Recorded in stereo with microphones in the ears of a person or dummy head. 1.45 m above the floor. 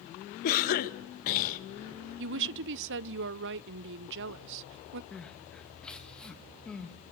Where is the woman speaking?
60° right (ahead or behind), 0.5 m.